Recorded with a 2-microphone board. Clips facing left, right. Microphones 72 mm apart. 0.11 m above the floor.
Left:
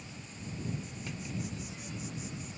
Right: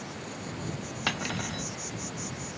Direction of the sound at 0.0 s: 70° right (ahead or behind).